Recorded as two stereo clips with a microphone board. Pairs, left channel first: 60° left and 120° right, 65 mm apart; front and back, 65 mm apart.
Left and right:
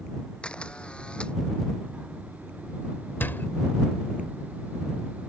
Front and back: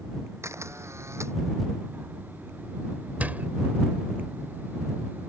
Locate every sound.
0.4 s a camera shutter: 135° left
3.2 s a door slam: 115° left